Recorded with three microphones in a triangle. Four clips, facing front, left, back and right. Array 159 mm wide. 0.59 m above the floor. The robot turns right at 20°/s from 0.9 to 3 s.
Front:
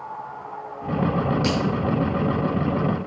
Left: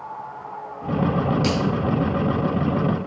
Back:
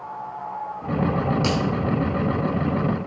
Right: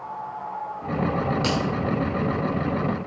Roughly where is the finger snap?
Behind.